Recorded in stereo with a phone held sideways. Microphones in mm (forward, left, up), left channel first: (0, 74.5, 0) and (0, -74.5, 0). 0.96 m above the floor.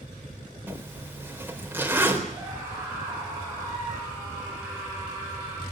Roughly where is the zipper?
Centre.